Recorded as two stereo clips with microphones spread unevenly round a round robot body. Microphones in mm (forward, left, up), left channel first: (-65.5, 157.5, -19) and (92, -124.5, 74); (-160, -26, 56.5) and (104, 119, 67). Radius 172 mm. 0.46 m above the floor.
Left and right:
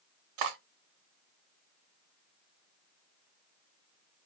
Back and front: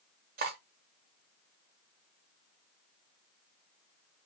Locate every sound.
0.4 s cutlery clinking: 30° right, 0.8 m